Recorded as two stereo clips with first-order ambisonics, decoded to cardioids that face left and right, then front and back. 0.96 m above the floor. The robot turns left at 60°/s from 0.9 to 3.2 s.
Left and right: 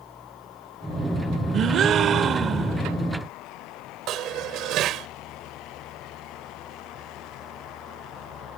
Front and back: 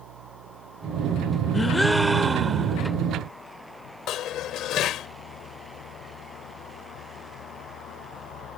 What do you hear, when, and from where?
0.0 s an engine running: 175° left; by 8.6 s 35° left
1.5 s a gasp: 65° right; by 2.8 s 145° right
4.1 s dishes clattering: 45° right